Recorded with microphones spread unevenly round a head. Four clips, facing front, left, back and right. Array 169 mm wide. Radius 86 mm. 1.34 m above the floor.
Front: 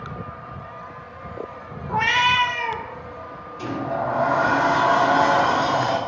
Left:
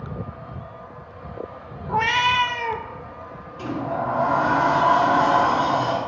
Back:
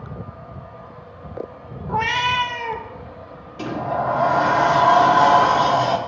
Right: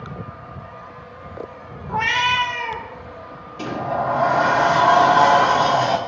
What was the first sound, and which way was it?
A cat meowing, 125° left.